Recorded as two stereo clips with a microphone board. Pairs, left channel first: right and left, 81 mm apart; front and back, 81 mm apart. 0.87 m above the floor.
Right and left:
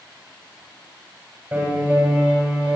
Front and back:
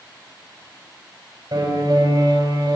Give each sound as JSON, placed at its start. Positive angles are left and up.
{"t": 1.5, "sound": "a piano", "azimuth_deg": 150, "distance_m": 5.5}